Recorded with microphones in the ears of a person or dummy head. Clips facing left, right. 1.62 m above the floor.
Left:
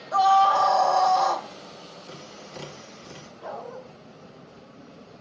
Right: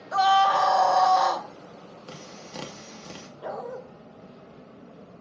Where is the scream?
20° right (ahead or behind), 1.4 m.